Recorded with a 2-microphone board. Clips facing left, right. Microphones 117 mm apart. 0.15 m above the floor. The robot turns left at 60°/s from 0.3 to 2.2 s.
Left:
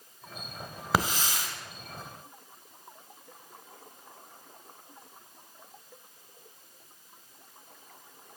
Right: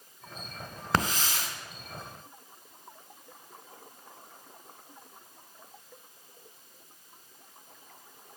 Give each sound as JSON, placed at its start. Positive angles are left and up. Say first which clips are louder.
{"t": 0.9, "sound": "a hiss", "louder": "left 1 dB", "side_deg": 5, "distance_m": 1.3}